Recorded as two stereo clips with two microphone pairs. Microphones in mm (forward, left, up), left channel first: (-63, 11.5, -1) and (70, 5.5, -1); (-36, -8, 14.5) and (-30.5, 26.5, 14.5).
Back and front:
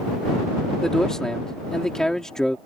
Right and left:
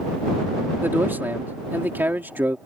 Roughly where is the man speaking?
Left.